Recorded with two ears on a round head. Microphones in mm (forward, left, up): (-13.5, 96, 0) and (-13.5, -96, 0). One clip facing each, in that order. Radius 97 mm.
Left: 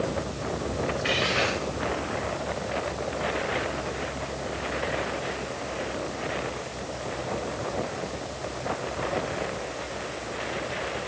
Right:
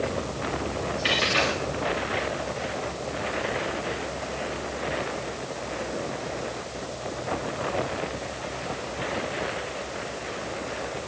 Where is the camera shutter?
I don't hear a camera shutter.